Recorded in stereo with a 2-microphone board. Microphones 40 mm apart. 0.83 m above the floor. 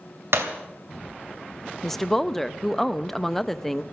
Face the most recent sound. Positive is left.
turn(degrees=5)  # may be behind; listen again after turning